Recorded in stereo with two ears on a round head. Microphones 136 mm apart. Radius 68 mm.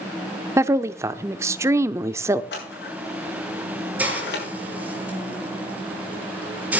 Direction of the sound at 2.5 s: 80° left.